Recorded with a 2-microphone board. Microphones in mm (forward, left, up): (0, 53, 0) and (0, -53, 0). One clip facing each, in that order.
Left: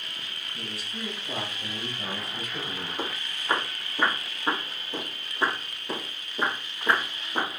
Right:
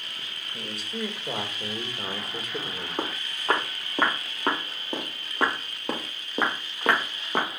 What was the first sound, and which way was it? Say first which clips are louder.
A man speaking: right 5 dB; 75° right (ahead or behind).